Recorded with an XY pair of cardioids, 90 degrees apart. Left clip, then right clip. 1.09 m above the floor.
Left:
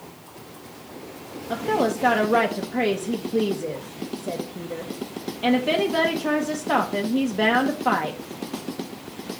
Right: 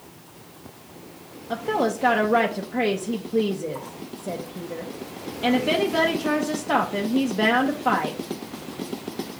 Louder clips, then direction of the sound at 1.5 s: Left 1 dB; 5° left.